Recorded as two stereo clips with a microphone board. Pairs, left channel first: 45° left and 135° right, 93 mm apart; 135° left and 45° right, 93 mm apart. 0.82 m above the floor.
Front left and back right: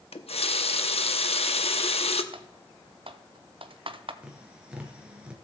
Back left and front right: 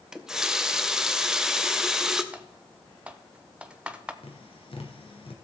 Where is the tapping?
145° left, 2 m.